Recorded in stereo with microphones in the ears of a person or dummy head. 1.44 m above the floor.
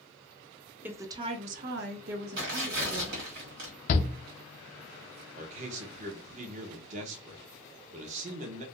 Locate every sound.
0.8 s a woman speaking: 15° right (ahead or behind), 0.7 m; by 3.2 s 55° right (ahead or behind), 1.1 m
2.4 s tearing paper: 60° right (ahead or behind), 1.4 m
3.9 s a shout: 50° left (ahead or behind), 0.5 m
5.3 s a man speaking: 45° right (ahead or behind), 0.7 m